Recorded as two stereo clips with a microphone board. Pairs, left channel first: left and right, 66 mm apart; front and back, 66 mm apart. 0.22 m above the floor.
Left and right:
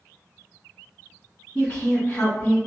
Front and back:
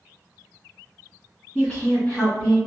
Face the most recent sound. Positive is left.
turn(degrees=65)